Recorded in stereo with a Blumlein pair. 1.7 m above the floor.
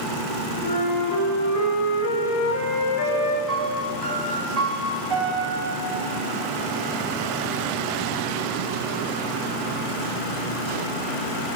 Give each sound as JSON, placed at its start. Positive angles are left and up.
{"t": 0.6, "sound": "a flute", "azimuth_deg": 50, "distance_m": 3.5}
{"t": 3.5, "sound": "a piano", "azimuth_deg": -5, "distance_m": 4.5}